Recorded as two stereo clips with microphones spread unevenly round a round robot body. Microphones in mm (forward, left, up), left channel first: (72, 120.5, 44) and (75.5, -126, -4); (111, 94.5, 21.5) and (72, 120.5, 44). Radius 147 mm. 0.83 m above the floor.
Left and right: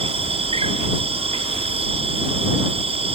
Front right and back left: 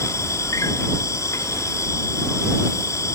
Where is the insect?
20° right.